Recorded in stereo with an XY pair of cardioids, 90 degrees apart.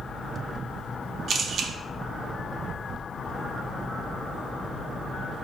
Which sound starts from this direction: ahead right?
A camera shutter, at 1.3 s.